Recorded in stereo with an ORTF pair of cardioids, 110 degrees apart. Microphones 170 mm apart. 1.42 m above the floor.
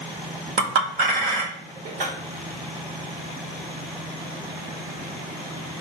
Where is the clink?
60° right, 1.5 m.